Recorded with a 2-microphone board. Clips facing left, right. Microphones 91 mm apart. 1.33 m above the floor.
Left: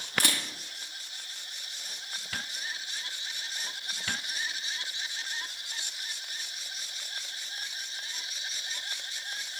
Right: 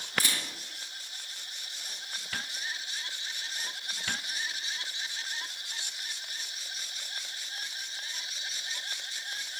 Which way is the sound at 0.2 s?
65° left (ahead or behind).